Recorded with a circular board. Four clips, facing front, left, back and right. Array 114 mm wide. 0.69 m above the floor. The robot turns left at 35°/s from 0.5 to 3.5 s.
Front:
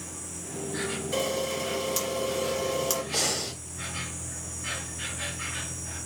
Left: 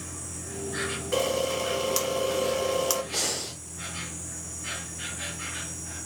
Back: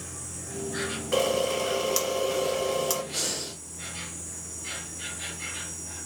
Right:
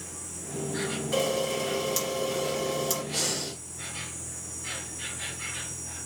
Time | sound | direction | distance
0.0 | an insect | 135° left | 2.5 m
1.1 | a camera shutter | 155° left | 1.7 m
3.1 | breathing | 25° left | 1.5 m